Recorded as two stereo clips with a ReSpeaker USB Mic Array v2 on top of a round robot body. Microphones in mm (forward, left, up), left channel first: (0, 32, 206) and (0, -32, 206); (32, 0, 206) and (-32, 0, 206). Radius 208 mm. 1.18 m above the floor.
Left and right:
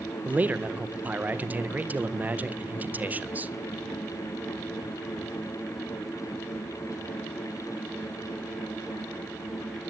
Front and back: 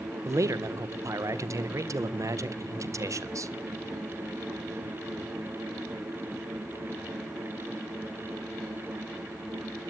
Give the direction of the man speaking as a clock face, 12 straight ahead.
5 o'clock.